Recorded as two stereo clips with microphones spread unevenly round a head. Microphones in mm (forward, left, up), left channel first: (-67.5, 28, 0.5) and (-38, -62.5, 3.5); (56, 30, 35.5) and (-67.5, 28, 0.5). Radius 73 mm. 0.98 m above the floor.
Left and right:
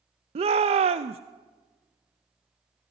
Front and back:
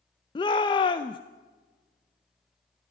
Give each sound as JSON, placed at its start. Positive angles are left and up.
{"t": 0.3, "sound": "a shout", "azimuth_deg": -60, "distance_m": 0.5}